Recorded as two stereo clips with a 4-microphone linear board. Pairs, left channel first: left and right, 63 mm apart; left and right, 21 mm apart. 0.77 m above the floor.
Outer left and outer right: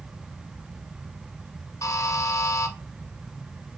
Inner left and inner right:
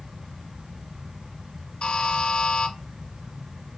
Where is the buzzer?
50° left (ahead or behind), 0.9 m.